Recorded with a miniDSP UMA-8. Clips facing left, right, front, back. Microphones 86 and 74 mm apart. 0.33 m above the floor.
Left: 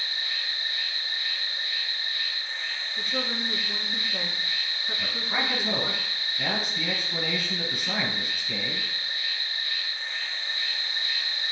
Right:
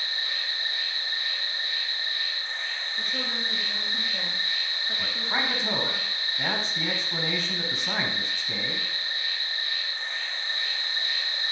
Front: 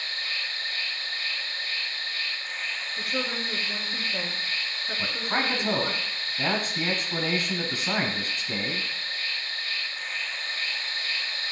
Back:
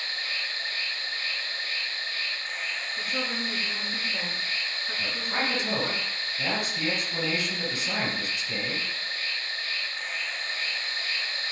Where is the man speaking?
30° right, 1.9 m.